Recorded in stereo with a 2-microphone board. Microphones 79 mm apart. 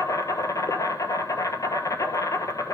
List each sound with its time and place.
0.0 s an insect: 45° left (ahead or behind), 1.2 m